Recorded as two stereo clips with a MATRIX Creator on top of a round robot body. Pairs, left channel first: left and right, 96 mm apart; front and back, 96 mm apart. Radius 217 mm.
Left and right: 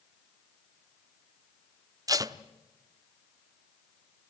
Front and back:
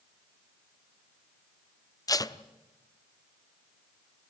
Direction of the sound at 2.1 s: 45° right.